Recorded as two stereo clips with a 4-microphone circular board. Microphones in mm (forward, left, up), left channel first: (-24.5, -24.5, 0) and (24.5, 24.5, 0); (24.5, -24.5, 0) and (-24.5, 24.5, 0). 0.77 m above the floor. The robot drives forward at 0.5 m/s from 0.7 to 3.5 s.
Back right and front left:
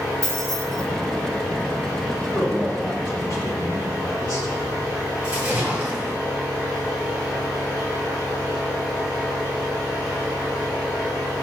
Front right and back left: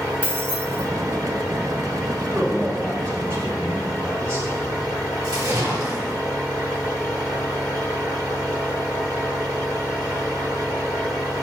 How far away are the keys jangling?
About 1.5 m.